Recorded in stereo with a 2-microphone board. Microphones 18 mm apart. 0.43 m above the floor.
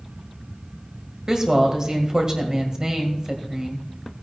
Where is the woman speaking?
35° right (ahead or behind), 2.0 m.